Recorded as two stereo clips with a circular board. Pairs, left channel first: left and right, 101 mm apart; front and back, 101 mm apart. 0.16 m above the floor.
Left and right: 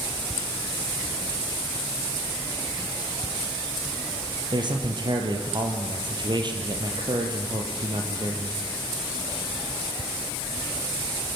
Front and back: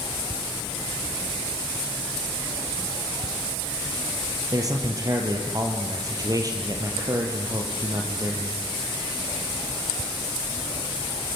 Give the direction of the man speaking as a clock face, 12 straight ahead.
4 o'clock.